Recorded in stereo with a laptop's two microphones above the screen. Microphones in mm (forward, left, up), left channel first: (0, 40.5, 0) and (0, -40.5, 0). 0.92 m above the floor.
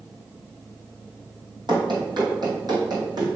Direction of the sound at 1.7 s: 60° right (ahead or behind).